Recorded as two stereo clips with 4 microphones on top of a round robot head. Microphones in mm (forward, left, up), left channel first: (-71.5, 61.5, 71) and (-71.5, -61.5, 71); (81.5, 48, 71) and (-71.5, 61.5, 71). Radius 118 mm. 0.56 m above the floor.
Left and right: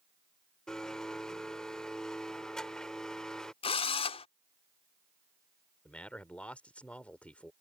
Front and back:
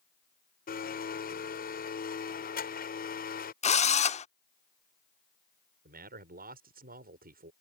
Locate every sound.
0.7 s a blender: 5° left
3.6 s a drill: 40° left
5.8 s a man speaking: 170° left